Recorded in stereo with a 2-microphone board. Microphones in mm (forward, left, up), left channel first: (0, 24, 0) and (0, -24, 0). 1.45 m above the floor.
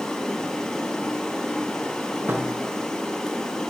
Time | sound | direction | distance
0.0 | running water | 15° left (ahead or behind) | 7.5 m
2.3 | a thud | 50° right (ahead or behind) | 6 m